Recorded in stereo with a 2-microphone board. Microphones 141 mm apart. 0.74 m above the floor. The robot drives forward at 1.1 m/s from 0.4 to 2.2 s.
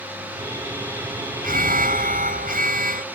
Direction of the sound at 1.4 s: 80° right.